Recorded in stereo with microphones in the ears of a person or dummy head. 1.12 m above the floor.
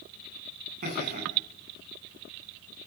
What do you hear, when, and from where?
0.8 s laughter: 45° right (ahead or behind), 9 m